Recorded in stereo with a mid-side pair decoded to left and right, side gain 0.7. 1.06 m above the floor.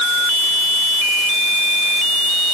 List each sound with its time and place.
Only background noise.